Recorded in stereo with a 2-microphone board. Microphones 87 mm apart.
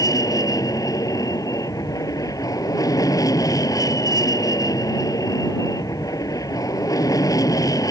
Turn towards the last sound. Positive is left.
turn(degrees=45)  # may be behind; listen again after turning